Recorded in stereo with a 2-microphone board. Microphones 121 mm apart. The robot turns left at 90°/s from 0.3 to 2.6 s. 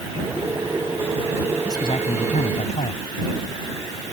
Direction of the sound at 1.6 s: 155° left.